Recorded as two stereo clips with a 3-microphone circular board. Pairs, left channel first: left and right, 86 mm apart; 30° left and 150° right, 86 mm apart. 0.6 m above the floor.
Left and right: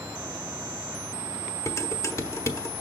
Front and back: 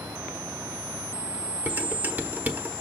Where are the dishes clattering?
145° left, 1.0 m.